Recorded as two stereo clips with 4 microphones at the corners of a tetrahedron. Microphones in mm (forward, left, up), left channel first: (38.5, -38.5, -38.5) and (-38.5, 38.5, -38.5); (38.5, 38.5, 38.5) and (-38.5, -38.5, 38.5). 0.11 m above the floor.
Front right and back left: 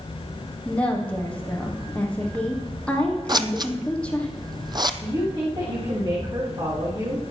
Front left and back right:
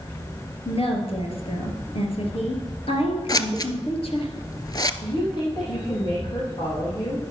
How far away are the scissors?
About 0.6 m.